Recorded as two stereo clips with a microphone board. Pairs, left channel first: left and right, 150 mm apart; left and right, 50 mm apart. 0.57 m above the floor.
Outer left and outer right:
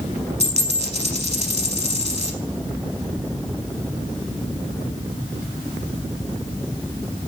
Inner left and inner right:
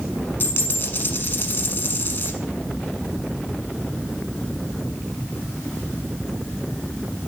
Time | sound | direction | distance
0.4 | a dropped coin | 45° left (ahead or behind) | 0.8 m